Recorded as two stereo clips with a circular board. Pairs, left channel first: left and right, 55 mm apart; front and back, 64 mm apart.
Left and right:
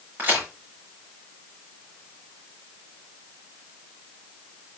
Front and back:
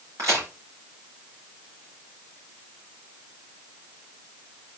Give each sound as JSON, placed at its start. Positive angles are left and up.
{"t": 0.2, "sound": "a crack", "azimuth_deg": -145, "distance_m": 5.5}